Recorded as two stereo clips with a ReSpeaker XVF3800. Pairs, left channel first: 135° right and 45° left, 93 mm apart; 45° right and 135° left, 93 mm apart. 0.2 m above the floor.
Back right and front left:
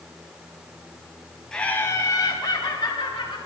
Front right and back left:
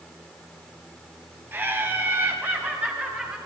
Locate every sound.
1.5 s laughter: 155° left, 1.2 m; by 3.4 s 155° right, 3 m